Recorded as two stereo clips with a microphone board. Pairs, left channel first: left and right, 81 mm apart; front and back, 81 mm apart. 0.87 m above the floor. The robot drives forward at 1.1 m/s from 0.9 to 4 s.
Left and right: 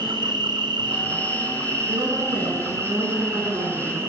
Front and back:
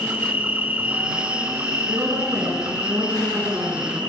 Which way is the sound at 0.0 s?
110° right.